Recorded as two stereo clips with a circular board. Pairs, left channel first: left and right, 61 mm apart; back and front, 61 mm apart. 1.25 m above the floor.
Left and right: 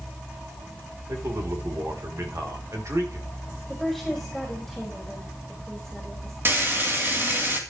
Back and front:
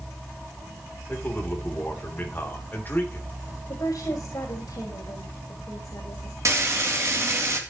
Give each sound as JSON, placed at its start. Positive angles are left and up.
{"t": 1.1, "sound": "a man speaking", "azimuth_deg": -125, "distance_m": 3.0}
{"t": 3.7, "sound": "a woman speaking", "azimuth_deg": 175, "distance_m": 4.0}
{"t": 6.5, "sound": "frying", "azimuth_deg": -40, "distance_m": 3.0}